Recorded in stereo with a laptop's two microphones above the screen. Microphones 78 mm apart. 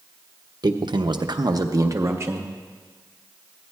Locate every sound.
0.6 s a man speaking: 65° right (ahead or behind), 0.6 m; by 2.5 s 30° right (ahead or behind), 1.0 m